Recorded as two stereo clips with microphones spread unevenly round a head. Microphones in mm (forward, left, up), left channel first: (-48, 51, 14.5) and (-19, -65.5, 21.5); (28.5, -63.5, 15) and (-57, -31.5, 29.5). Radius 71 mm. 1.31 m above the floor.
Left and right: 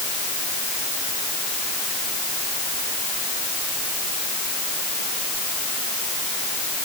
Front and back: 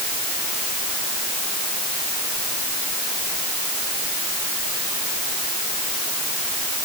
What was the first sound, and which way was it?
Only background noise.